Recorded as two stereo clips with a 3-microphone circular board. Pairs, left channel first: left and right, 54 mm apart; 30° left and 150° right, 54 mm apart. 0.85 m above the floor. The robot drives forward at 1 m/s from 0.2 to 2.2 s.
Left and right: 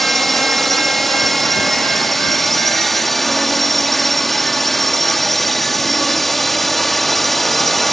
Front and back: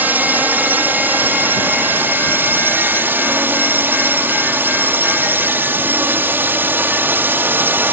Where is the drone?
175° left.